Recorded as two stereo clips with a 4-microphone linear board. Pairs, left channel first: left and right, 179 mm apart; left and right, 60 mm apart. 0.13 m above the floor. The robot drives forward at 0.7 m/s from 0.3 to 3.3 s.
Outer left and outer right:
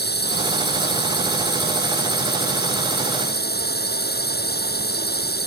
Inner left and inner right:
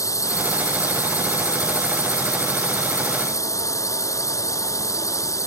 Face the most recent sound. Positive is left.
turn(degrees=70)  # may be behind; listen again after turning